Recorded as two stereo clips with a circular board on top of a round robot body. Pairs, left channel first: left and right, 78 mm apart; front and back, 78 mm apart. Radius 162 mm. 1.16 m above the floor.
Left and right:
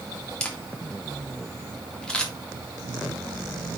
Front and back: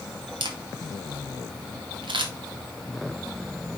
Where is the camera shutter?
170° left, 2 m.